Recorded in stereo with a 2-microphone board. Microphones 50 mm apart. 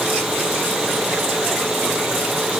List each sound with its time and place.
Only background noise.